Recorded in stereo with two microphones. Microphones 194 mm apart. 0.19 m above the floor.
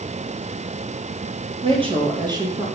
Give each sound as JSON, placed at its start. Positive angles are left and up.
{"t": 1.6, "sound": "a woman speaking", "side_deg": -30, "distance_m": 4.0}